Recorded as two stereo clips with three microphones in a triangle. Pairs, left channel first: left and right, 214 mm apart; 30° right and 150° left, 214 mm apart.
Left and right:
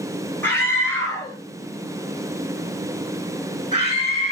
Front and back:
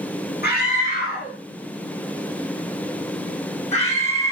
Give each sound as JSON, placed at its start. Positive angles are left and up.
{"t": 0.4, "sound": "a scream", "azimuth_deg": 10, "distance_m": 9.5}